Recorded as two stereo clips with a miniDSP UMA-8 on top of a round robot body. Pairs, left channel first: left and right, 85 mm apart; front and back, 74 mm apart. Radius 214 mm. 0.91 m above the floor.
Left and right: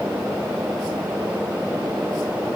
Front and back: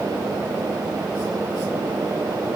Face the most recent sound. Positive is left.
No sound to turn to.